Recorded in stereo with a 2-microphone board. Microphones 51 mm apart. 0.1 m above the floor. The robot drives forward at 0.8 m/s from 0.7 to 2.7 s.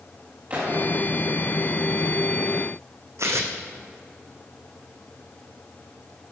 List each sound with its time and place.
0.5 s a gunshot: 35° right (ahead or behind), 5 m
3.2 s tearing paper: 65° right (ahead or behind), 1.4 m